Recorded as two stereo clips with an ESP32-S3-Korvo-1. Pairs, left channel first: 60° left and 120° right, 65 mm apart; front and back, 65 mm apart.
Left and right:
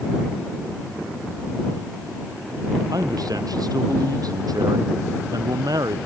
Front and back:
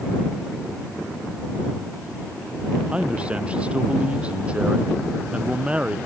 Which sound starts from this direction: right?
A man speaking, at 2.9 s.